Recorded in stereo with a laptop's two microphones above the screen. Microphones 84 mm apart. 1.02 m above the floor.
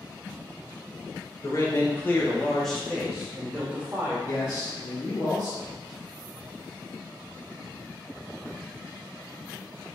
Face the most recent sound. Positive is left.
turn(degrees=40)  # may be behind; listen again after turning